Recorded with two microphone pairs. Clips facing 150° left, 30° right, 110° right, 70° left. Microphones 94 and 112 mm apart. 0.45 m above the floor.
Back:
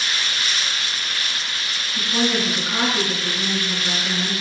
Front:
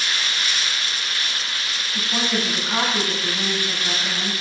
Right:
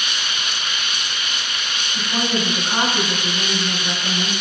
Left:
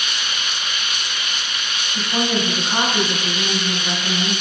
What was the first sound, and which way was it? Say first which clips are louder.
A woman speaking: back 3 dB, left 1 dB; 20° right.